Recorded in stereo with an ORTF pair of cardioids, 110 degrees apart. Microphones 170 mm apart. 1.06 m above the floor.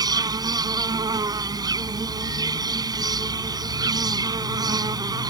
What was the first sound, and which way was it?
An insect, 25° right.